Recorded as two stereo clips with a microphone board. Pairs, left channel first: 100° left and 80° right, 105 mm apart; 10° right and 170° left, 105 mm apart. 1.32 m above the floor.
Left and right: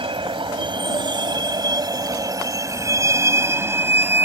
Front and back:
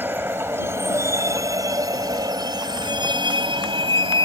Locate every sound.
0.0 s a vehicle: 120° right; by 4.2 s 150° right